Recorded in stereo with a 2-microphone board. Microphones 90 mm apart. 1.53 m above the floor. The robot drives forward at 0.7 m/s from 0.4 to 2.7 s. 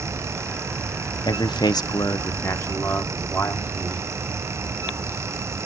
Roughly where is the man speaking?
Left.